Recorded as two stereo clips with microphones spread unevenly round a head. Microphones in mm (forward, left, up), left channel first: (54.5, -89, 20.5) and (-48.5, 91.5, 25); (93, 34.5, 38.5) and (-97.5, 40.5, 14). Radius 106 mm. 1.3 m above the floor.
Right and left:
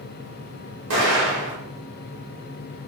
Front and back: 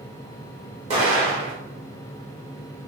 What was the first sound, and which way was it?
An explosion, 120° left.